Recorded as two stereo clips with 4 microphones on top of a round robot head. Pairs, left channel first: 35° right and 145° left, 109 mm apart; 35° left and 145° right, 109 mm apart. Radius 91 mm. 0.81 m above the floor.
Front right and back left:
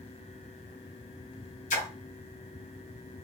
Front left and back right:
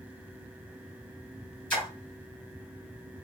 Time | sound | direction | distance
1.7 | a splash | 50° right | 1.9 m